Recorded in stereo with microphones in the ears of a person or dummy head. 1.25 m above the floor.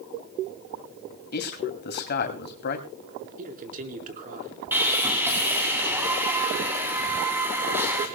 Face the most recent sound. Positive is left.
turn(degrees=-10)  # may be behind; listen again after turning